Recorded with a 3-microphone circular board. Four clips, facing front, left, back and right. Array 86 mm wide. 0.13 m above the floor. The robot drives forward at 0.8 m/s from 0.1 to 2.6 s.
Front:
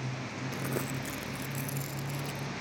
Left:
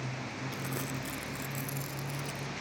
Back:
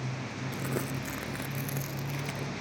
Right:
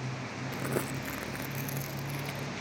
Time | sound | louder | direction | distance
0.5 | crumpling | right 7 dB, back 1 dB | 65° right | 0.7 m